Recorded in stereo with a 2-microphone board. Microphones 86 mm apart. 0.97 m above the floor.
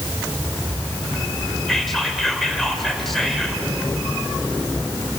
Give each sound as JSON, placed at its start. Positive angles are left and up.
{"t": 1.7, "sound": "whispering", "side_deg": 5, "distance_m": 4.0}